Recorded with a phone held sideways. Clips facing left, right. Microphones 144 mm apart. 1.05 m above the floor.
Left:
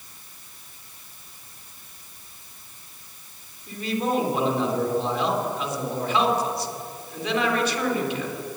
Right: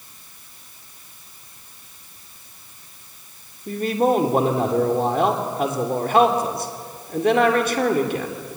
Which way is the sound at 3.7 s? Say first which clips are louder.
Right 7 dB; 55° right (ahead or behind).